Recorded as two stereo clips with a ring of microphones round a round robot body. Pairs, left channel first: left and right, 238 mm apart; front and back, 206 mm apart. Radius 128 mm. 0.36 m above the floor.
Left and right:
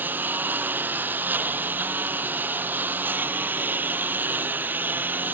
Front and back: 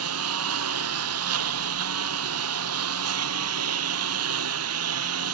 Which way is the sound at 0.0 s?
175° right.